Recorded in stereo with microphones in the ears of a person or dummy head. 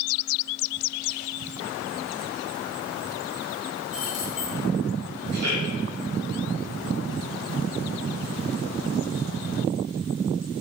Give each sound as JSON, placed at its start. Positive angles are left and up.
{"t": 3.9, "sound": "keys jangling", "side_deg": 0, "distance_m": 2.5}
{"t": 5.3, "sound": "a man speaking", "side_deg": -90, "distance_m": 4.5}